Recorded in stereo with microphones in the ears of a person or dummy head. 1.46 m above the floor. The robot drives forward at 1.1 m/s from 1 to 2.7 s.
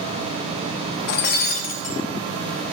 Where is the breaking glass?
60° left (ahead or behind), 1.3 m; by 2.0 s 40° left (ahead or behind), 1.8 m.